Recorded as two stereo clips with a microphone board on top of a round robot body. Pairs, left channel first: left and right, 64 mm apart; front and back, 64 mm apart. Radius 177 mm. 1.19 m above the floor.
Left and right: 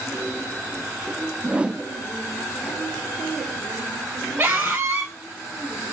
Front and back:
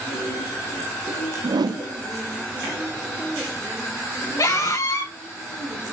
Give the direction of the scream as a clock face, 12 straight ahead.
1 o'clock.